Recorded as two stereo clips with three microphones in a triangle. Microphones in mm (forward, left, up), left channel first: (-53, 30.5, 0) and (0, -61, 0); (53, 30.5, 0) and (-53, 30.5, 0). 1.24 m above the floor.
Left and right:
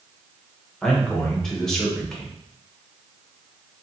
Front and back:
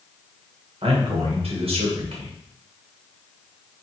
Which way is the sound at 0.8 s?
155° right.